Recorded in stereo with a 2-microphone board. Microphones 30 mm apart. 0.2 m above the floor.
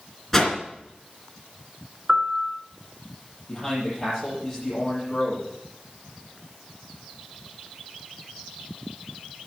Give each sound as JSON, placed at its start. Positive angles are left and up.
{"t": 0.3, "sound": "a whoosh", "side_deg": 5, "distance_m": 2.5}
{"t": 2.1, "sound": "a piano", "side_deg": -35, "distance_m": 1.0}
{"t": 3.5, "sound": "a man speaking", "side_deg": 15, "distance_m": 6.5}